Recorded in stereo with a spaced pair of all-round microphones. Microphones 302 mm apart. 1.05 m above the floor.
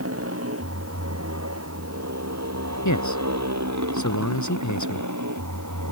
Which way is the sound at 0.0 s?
50° right (ahead or behind).